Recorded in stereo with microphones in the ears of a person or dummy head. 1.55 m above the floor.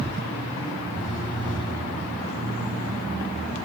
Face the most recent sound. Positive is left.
turn(degrees=-5)  # may be behind; listen again after turning